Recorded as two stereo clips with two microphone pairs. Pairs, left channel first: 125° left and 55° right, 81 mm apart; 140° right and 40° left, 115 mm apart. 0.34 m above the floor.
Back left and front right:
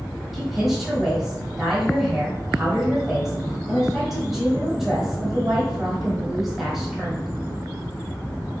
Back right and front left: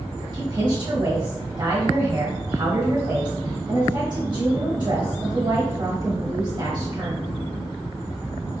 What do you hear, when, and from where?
0.3 s a woman speaking: 30° left, 1.2 m